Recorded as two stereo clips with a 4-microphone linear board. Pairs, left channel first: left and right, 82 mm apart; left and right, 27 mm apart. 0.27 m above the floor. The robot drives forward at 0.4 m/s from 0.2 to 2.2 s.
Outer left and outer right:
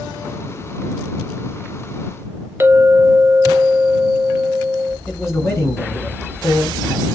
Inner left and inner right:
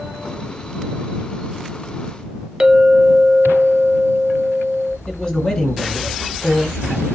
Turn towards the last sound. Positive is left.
turn(degrees=30)  # may be behind; listen again after turning